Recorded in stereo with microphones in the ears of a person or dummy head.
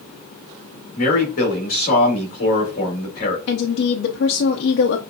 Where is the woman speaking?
60° left (ahead or behind), 0.7 m.